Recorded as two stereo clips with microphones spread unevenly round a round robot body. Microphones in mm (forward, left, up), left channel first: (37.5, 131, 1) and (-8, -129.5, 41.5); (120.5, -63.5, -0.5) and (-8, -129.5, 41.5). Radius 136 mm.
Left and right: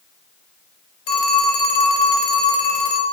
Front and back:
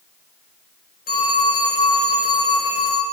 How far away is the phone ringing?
About 2.5 m.